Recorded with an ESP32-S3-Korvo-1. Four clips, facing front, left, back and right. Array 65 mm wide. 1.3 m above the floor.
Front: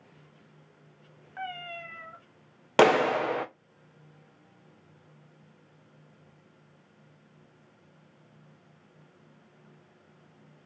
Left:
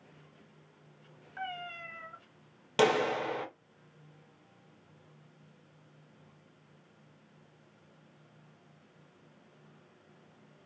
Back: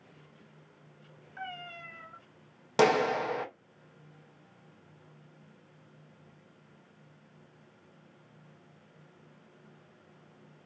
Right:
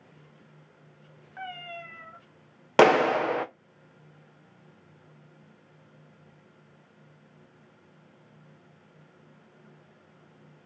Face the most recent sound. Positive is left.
turn(degrees=-65)